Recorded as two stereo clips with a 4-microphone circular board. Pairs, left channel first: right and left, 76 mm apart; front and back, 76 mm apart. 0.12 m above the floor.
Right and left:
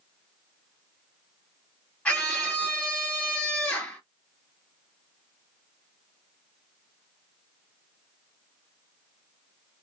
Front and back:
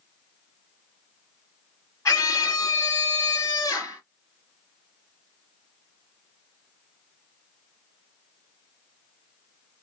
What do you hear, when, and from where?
2.0 s a scream: 20° right, 2 m